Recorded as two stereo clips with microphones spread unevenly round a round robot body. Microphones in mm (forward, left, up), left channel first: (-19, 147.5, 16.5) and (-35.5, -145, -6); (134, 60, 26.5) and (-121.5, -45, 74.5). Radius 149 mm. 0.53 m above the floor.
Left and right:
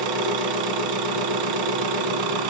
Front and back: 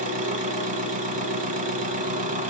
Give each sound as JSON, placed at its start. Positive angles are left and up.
{"t": 0.0, "sound": "an engine running", "azimuth_deg": -95, "distance_m": 1.7}